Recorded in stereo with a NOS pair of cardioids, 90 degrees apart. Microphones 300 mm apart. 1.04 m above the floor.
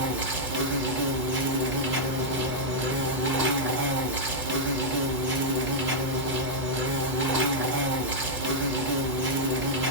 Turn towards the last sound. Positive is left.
turn(degrees=-35)